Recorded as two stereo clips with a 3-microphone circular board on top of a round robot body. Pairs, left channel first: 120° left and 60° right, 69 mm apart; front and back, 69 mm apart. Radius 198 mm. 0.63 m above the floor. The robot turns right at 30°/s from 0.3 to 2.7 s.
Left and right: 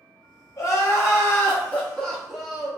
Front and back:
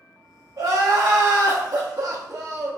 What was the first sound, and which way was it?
Crying, 155° left.